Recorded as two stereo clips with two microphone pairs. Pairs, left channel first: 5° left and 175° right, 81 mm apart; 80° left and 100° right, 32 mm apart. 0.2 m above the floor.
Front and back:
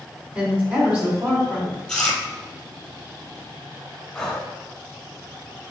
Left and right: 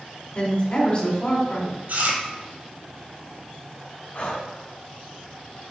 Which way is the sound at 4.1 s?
85° left.